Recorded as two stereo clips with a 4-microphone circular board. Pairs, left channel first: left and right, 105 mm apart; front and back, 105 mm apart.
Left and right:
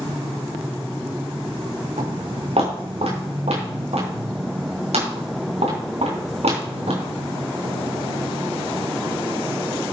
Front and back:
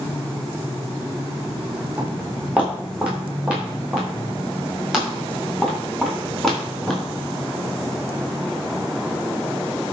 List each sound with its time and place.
2.0 s footsteps: 105° right, 6.5 m; by 7.0 s 90° right, 8.5 m